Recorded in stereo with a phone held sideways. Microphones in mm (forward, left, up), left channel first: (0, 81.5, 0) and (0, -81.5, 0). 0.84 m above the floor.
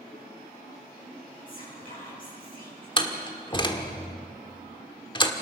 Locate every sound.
1.5 s whispering: 60° left (ahead or behind), 9.5 m
3.0 s a door slam: 30° left (ahead or behind), 1.6 m